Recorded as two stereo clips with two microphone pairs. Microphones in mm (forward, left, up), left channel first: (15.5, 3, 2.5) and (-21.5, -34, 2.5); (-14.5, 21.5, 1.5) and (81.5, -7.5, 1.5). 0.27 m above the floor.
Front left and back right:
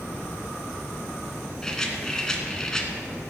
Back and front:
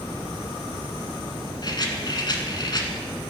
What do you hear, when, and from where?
1.6 s a rattle: 120° left, 1.4 m